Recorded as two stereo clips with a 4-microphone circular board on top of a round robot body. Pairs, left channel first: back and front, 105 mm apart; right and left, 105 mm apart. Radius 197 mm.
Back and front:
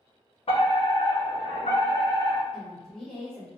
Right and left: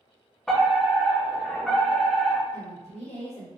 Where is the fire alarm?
175° right, 3 m.